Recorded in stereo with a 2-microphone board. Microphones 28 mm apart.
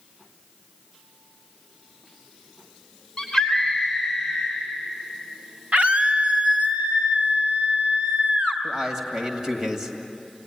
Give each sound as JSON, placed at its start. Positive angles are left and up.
{"t": 3.2, "sound": "a scream", "side_deg": 15, "distance_m": 3.0}
{"t": 5.7, "sound": "a scream", "side_deg": -55, "distance_m": 3.0}
{"t": 8.6, "sound": "a man speaking", "side_deg": -20, "distance_m": 2.5}